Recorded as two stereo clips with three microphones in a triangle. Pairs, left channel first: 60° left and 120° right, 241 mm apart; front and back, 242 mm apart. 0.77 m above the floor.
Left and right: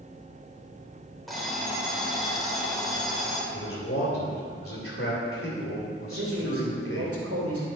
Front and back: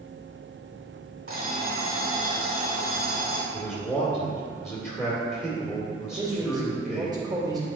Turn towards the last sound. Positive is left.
turn(degrees=-110)